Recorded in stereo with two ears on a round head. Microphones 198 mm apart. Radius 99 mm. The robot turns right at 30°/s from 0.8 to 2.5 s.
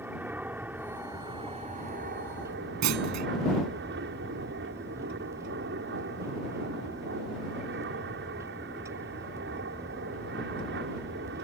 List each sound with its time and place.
0.0 s an aircraft: 170° right; by 11.4 s 120° right
2.8 s a clunk: 85° right